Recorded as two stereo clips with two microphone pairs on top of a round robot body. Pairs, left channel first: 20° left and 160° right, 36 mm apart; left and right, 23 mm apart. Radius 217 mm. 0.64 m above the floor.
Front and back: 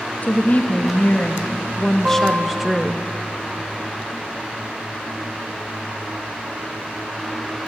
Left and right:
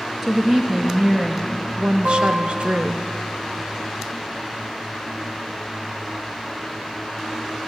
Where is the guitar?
100° right, 1.3 m.